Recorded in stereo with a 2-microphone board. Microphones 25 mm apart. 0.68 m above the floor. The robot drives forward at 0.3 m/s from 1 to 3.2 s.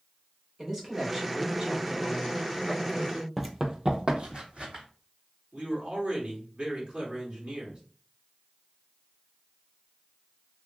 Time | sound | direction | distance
0.6 | a man speaking | 25° right (ahead or behind) | 1.4 m
3.4 | running footsteps | 5° right (ahead or behind) | 0.7 m
5.5 | a man speaking | 50° right (ahead or behind) | 1.4 m